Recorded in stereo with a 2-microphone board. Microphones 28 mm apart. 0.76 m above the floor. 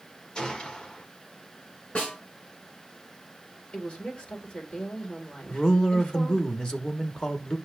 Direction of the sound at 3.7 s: 45° left (ahead or behind).